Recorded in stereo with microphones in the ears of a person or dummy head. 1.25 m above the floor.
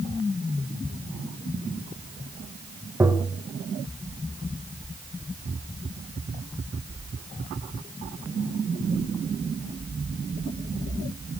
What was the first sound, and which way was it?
Tapping, 10° right (ahead or behind).